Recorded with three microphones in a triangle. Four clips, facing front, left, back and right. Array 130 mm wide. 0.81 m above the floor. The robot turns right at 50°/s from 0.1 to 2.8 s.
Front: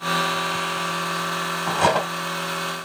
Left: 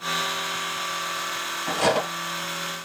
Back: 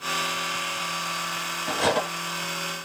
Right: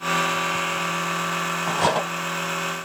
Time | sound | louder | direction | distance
1.7 | cutlery clinking | even, front 4 dB | 25° right | 1.2 m